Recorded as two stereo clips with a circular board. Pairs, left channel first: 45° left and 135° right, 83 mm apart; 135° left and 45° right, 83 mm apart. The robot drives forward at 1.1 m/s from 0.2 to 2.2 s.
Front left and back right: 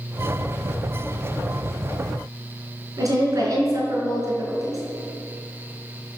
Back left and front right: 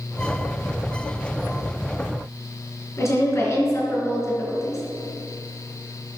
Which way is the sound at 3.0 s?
175° right.